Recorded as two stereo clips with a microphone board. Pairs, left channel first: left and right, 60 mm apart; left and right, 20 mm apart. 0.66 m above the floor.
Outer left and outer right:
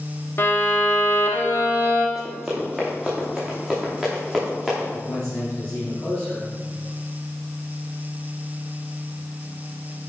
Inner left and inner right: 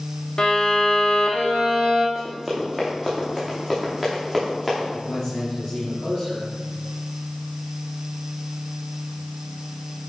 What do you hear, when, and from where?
0.4 s a violin: 40° left (ahead or behind), 1.5 m
2.1 s running footsteps: centre (ahead or behind), 3.5 m; by 4.8 s 5° left (ahead or behind), 5.5 m
4.9 s a man speaking: 15° left (ahead or behind), 4 m